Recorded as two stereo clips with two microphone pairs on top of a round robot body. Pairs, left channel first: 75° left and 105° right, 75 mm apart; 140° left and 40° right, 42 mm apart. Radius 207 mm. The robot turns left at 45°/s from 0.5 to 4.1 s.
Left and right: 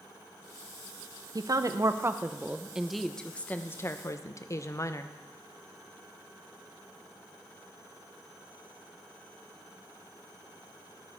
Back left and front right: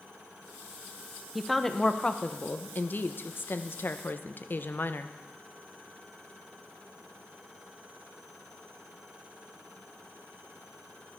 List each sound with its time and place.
1.4 s a woman speaking: 120° right, 1.1 m; by 5.1 s 115° left, 1.1 m